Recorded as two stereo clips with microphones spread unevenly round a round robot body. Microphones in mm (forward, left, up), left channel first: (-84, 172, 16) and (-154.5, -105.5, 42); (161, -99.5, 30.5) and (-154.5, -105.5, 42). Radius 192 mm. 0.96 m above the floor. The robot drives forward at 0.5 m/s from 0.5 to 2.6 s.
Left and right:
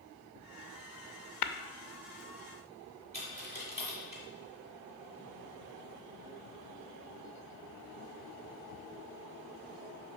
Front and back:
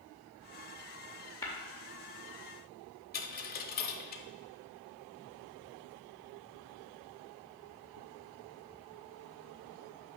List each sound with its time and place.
1.4 s tapping: 85° left, 0.6 m; by 1.5 s 90° left, 0.6 m
3.1 s a dropped coin: 50° right, 0.9 m